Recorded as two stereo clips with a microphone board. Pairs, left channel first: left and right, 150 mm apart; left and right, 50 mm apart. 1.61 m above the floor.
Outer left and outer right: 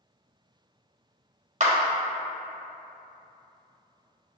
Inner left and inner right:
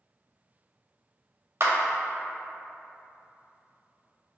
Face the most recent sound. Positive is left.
turn(degrees=-50)  # may be behind; listen again after turning